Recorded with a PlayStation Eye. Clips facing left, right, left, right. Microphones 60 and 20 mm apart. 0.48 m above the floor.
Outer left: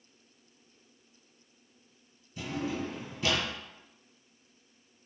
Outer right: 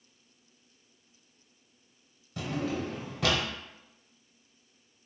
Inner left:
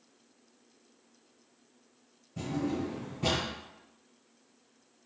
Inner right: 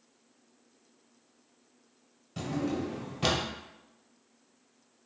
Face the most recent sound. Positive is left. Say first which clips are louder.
# outer right 2 dB, inner right 1 dB
turn(degrees=-85)